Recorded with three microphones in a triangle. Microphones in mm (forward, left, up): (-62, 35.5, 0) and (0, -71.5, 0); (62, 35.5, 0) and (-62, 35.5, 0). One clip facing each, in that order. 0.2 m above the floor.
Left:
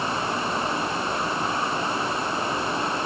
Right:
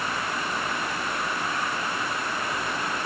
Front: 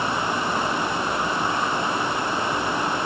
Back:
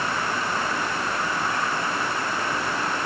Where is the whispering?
I don't hear whispering.